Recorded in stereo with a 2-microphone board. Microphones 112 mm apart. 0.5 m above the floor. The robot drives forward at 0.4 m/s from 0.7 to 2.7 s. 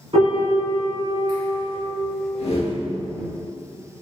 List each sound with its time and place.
0.1 s a piano: 60° right (ahead or behind), 1.4 m; by 1.8 s 45° right (ahead or behind), 1.6 m
2.4 s a whoosh: 70° left (ahead or behind), 0.6 m; by 2.8 s 60° left (ahead or behind), 0.6 m